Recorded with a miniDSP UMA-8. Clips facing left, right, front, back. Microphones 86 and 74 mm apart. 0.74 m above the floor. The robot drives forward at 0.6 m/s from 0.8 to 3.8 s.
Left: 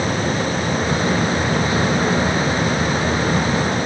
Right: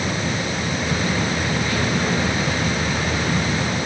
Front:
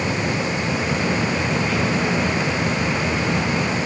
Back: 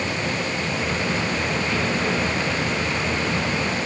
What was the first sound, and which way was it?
Only background noise.